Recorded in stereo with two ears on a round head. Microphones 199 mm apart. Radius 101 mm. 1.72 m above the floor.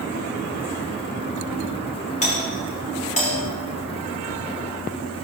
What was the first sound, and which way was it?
A doorbell, 35° left (ahead or behind).